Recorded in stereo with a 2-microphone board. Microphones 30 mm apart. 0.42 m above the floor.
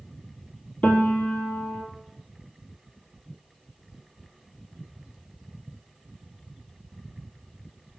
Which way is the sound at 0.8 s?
55° left (ahead or behind).